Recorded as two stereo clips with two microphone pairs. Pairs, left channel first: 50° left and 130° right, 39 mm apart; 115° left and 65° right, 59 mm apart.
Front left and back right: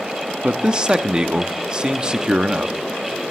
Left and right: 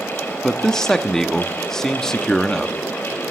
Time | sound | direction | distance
0.4 | a man speaking | 175° right | 0.8 m